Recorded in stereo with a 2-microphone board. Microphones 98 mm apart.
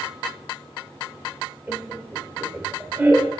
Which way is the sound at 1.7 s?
25° right (ahead or behind).